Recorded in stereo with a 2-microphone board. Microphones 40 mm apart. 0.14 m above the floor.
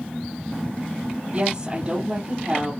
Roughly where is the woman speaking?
Centre.